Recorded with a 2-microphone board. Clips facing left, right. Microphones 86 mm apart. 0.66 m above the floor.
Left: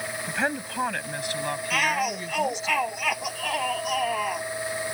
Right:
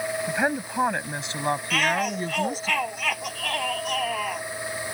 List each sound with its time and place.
0.3 s a woman speaking: 10° right (ahead or behind); by 2.7 s 40° right (ahead or behind)
1.7 s a shout: 5° left (ahead or behind)